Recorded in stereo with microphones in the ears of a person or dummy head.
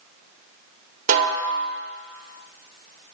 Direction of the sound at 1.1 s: 45° right (ahead or behind).